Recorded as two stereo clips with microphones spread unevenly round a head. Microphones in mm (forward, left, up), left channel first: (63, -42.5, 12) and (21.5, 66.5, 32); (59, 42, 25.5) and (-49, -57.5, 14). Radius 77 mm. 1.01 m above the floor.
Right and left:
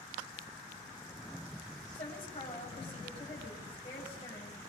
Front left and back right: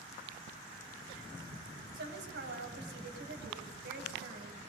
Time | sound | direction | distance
1.9 | a woman speaking | 125° right | 7.5 m